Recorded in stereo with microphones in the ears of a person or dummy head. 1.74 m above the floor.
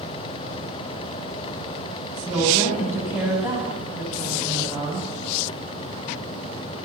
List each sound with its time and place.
2.2 s a woman speaking: 10° right (ahead or behind), 8 m